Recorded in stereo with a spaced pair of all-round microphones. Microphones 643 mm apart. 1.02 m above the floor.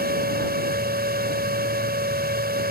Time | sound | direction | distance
0.0 | a fan | 15° right (ahead or behind) | ?